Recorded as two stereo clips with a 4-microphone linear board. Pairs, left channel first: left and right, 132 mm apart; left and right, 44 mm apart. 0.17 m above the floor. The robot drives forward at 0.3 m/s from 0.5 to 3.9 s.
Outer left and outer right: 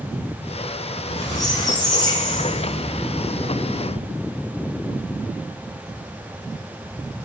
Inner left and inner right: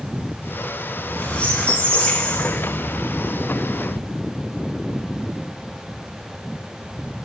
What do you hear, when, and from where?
0.9 s a squeak: 25° left (ahead or behind), 0.8 m